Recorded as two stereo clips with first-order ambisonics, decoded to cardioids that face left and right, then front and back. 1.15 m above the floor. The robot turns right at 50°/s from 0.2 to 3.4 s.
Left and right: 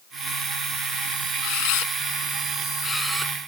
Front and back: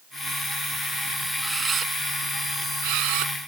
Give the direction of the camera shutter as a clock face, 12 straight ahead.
9 o'clock.